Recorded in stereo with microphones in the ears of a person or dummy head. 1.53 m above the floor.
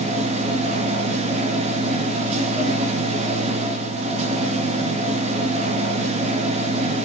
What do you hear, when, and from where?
0.0 s a machine running: 40° right (ahead or behind), 1.8 m